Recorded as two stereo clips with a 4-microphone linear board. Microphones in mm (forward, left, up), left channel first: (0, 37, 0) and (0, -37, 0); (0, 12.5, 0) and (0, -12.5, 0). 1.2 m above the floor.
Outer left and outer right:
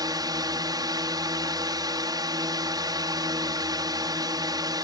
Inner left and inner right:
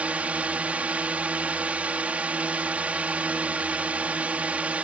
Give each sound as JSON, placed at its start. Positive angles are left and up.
{"t": 0.0, "sound": "a drone", "side_deg": -55}